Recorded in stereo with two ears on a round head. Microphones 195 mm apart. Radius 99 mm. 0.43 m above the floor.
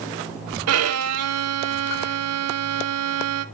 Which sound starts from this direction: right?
A violin, at 0.7 s.